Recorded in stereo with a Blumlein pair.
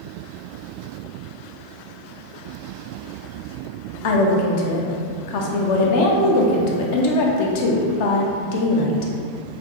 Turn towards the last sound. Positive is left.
turn(degrees=50)